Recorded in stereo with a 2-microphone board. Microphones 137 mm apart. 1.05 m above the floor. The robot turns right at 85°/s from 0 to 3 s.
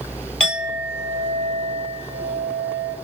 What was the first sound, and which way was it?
A clink, 175° left.